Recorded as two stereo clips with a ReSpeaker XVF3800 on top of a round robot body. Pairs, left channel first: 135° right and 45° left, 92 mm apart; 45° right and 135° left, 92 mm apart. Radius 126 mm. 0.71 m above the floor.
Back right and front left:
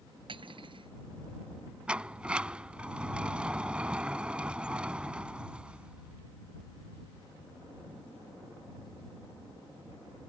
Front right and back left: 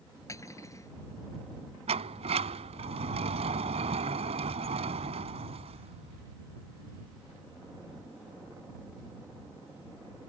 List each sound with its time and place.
0.3 s cutlery clinking: 15° left
1.9 s a sliding door: 125° left